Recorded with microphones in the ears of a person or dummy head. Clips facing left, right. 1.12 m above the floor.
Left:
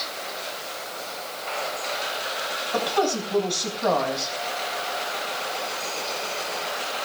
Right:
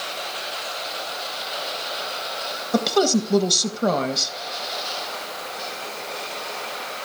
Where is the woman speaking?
55° right (ahead or behind), 1.3 m.